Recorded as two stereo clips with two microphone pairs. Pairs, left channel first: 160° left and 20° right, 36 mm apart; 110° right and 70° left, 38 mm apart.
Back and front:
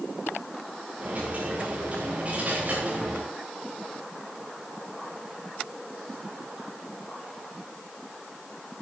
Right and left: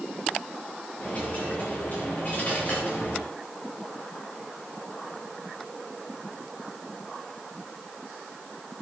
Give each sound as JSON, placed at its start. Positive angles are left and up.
{"t": 1.0, "sound": "a dropped coin", "azimuth_deg": -65, "distance_m": 7.5}